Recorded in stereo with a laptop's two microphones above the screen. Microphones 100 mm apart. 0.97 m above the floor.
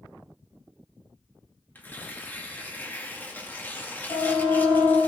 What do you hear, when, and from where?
1.8 s tearing paper: 20° left (ahead or behind), 2 m
4.1 s a siren: 75° left (ahead or behind), 8.5 m